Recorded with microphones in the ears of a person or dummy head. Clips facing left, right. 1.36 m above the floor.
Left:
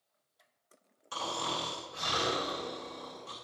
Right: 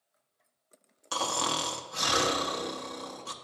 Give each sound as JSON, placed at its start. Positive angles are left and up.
{"t": 1.1, "sound": "snoring", "side_deg": -70, "distance_m": 0.9}